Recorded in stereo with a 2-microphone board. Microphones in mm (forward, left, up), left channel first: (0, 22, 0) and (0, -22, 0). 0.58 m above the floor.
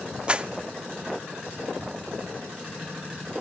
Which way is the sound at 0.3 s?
25° right (ahead or behind).